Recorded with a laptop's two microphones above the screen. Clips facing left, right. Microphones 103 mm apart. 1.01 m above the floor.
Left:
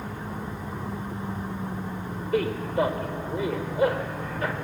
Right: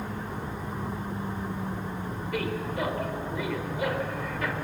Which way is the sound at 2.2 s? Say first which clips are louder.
Left 6 dB; 35° left (ahead or behind).